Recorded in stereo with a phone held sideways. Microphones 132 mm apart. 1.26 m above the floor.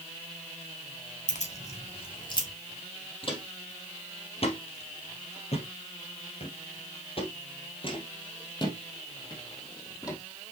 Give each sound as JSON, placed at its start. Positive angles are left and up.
{"t": 1.3, "sound": "keys jangling", "side_deg": 65, "distance_m": 1.7}
{"t": 3.2, "sound": "footsteps", "side_deg": 40, "distance_m": 2.5}